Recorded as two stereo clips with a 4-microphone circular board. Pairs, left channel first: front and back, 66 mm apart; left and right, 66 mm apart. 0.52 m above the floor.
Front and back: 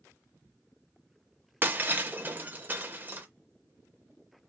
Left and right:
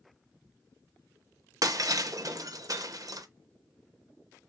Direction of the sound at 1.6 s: 120° right.